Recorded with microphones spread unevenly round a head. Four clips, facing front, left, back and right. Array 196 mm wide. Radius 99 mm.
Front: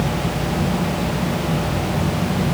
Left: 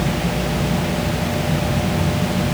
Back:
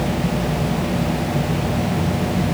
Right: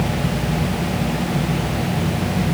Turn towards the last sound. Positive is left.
No sound to turn to.